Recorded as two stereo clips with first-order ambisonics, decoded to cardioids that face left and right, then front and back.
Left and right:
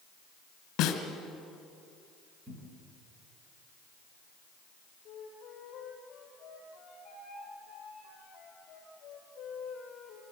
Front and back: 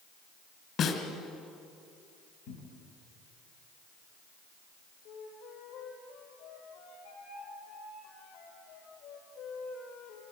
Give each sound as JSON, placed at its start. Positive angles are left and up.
{"t": 0.8, "sound": "a snare drum", "azimuth_deg": 55, "distance_m": 2.5}
{"t": 2.5, "sound": "a cupboard door", "azimuth_deg": -20, "distance_m": 4.0}
{"t": 5.0, "sound": "a flute", "azimuth_deg": 25, "distance_m": 5.0}